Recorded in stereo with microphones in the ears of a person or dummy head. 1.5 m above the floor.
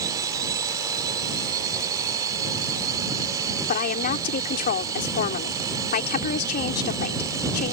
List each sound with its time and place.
0.0 s a drone: 20° right (ahead or behind)
3.7 s a woman speaking: 50° left (ahead or behind)